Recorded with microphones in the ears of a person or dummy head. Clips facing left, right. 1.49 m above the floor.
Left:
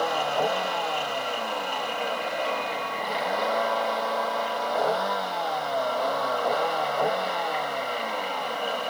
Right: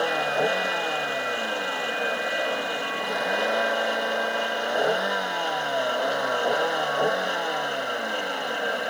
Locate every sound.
0.0 s a vehicle: 20° right (ahead or behind)